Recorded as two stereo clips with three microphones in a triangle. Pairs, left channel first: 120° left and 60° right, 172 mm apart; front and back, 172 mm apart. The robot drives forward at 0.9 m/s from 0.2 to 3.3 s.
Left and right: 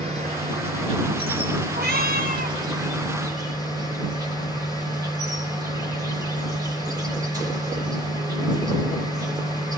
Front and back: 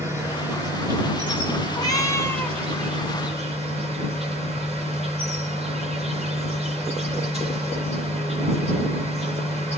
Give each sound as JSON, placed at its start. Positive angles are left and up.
{"t": 0.0, "sound": "an insect", "azimuth_deg": -105, "distance_m": 6.0}
{"t": 1.7, "sound": "a cat meowing", "azimuth_deg": -65, "distance_m": 2.5}